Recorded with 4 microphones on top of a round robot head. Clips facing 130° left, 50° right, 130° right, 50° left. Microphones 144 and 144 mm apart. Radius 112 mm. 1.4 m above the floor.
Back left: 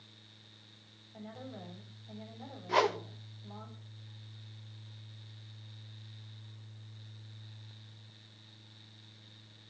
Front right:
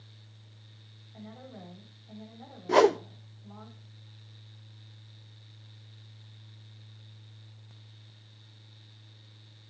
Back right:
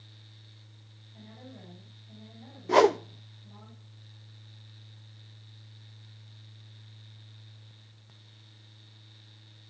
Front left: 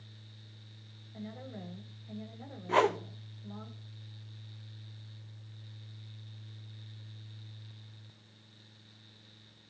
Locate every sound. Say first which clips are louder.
1.1 s a woman speaking: even, front left 5 dB; 50° left, 9 m
2.7 s a whoosh: front right 9 dB, back right 7 dB; 85° right, 0.7 m